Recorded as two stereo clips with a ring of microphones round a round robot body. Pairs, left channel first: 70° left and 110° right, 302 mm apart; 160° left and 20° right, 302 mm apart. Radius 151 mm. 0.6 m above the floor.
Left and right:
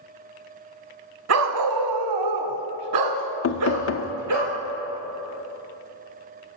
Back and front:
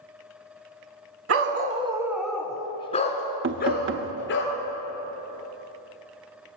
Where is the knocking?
25° left, 0.8 m.